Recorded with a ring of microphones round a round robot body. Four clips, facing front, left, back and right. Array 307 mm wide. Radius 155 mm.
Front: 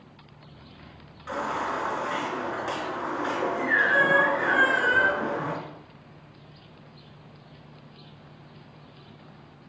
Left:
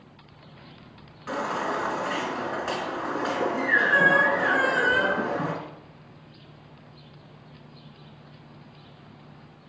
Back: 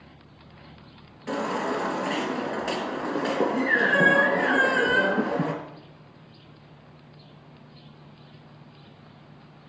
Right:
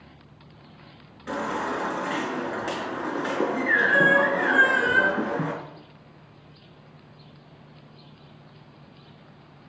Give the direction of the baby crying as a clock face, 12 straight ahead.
5 o'clock.